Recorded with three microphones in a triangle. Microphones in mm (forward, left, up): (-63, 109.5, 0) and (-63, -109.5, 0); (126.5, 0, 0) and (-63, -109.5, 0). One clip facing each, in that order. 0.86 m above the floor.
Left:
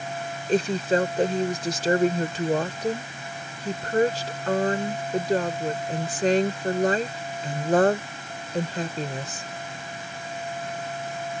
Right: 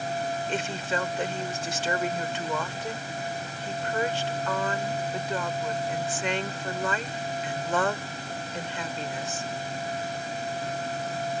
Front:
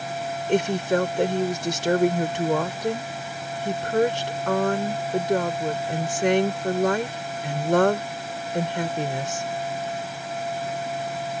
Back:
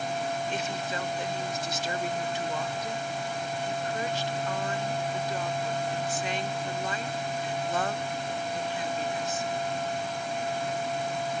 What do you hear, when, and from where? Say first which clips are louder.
0.5 s a woman speaking: left 8 dB, front 12 dB; 45° left